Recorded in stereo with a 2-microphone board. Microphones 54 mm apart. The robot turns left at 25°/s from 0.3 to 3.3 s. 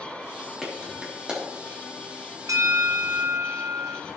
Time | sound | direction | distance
0.6 | a clap | centre (ahead or behind) | 2.5 m
2.5 | a bell | 75° right (ahead or behind) | 0.7 m